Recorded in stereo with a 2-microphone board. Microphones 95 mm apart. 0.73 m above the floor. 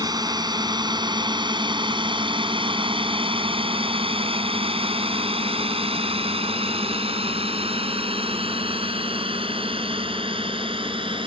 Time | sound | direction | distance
0.0 | a drone | 45° right (ahead or behind) | ?